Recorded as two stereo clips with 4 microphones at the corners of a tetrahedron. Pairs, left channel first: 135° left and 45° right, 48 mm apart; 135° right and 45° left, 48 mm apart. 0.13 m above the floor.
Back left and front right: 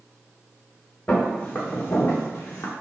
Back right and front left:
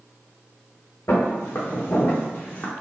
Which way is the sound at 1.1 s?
165° right.